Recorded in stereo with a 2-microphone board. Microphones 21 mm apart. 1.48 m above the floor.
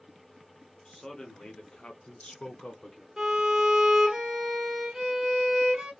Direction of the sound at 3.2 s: 25° right (ahead or behind).